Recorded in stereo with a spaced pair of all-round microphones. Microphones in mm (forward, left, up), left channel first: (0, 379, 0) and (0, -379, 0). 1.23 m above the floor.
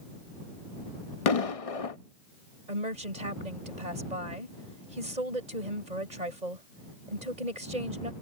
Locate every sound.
1.3 s an explosion: 50° left (ahead or behind)
2.7 s a woman speaking: 60° right (ahead or behind)